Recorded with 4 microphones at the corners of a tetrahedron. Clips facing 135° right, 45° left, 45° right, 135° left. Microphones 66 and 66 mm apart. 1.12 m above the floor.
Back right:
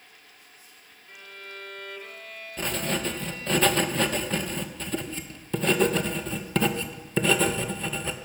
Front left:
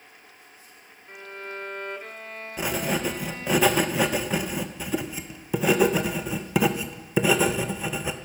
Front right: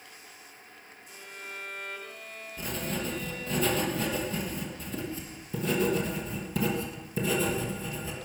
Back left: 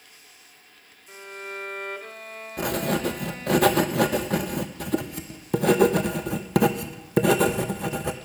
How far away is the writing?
About 0.9 m.